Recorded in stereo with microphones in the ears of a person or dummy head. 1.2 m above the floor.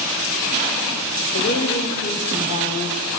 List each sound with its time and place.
1.3 s a woman speaking: 60° left (ahead or behind), 5.5 m; by 3.0 s 50° left (ahead or behind), 6 m